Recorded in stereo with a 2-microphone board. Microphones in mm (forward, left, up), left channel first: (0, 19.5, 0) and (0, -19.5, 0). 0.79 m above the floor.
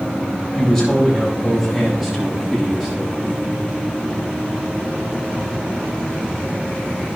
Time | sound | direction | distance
0.6 | a man speaking | 10° left (ahead or behind) | 4 m